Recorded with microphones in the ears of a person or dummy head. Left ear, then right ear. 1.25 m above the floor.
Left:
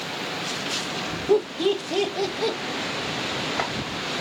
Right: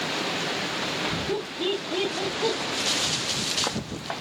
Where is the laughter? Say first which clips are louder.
Left 6 dB; 50° left (ahead or behind), 0.9 m; by 2.6 s 80° left, 1.4 m.